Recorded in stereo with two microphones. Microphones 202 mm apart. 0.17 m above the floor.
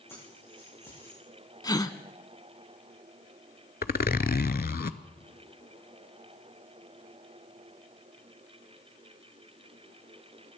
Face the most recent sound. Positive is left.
turn(degrees=50)  # may be behind; listen again after turning